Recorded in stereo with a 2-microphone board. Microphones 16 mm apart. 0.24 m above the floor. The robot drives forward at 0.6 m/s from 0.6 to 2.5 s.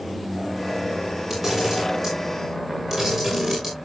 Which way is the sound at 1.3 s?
15° right (ahead or behind).